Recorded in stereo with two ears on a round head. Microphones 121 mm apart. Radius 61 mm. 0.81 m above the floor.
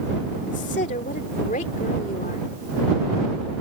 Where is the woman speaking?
55° left (ahead or behind).